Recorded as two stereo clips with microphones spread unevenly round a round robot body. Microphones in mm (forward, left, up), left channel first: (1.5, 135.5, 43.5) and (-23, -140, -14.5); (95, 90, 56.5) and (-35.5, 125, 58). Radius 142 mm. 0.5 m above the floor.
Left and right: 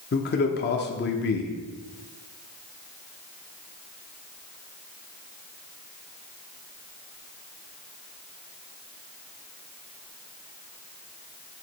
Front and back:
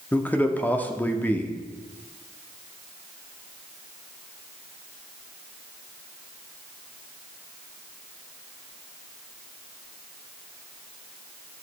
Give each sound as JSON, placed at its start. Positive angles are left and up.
{"t": 0.1, "sound": "a man speaking", "azimuth_deg": 50, "distance_m": 0.8}